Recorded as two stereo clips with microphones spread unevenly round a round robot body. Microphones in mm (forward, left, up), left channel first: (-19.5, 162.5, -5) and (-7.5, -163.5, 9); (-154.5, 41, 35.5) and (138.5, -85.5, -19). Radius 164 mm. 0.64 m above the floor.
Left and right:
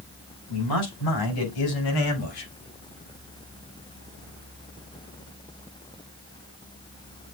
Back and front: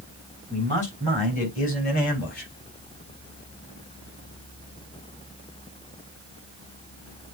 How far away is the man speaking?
About 5.5 m.